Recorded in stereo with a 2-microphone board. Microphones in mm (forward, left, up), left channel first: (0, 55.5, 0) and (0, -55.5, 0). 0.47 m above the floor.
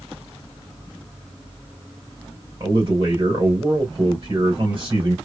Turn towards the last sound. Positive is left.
turn(degrees=-45)  # may be behind; listen again after turning